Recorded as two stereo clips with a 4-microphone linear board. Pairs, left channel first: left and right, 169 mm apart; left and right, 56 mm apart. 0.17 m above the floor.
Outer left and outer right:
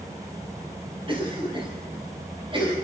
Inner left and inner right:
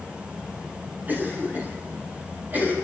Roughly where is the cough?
Right.